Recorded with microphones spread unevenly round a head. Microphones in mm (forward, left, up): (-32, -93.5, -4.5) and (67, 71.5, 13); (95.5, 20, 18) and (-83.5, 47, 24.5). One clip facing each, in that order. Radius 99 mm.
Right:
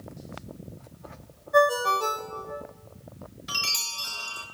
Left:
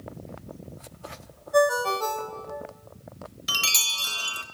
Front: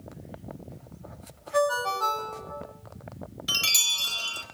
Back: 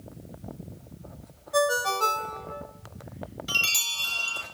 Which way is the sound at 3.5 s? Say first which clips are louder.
Left 2 dB, back 1 dB; 30° left.